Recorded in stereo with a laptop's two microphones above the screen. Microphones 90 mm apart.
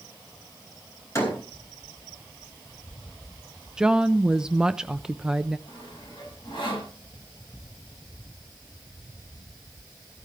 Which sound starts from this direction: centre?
A woman speaking, at 3.8 s.